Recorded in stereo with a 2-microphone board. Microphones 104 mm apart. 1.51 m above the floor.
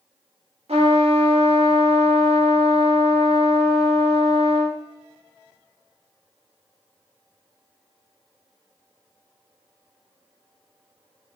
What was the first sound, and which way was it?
A trumpet, 75° right (ahead or behind).